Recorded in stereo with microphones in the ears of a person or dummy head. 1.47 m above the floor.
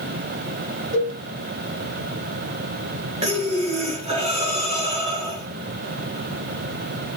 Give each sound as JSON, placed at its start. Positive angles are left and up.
{"t": 0.9, "sound": "a cowbell", "side_deg": -55, "distance_m": 8.0}
{"t": 3.2, "sound": "breathing", "side_deg": -30, "distance_m": 4.0}